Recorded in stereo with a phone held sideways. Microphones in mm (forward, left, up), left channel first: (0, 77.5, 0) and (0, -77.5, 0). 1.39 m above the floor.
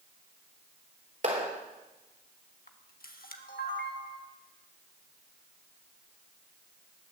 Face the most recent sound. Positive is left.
turn(degrees=75)  # may be behind; listen again after turning